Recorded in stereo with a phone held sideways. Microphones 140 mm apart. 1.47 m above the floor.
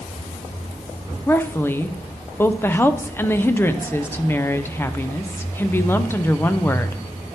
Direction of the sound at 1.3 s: 15° left (ahead or behind).